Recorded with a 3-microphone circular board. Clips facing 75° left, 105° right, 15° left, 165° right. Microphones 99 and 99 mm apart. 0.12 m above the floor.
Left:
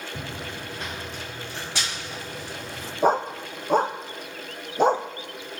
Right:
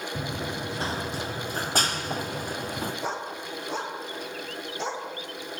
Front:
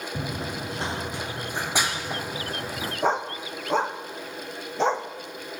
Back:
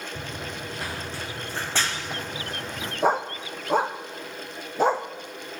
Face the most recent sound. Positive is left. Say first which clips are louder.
# left 10 dB, back 2 dB
turn(degrees=115)